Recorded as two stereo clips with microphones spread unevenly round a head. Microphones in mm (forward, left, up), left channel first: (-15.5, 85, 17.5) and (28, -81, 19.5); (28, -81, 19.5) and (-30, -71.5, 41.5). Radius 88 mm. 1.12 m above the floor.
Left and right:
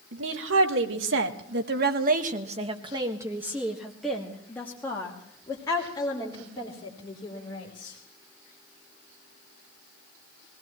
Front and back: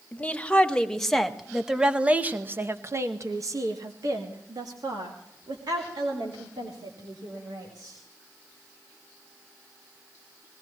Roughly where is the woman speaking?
Right.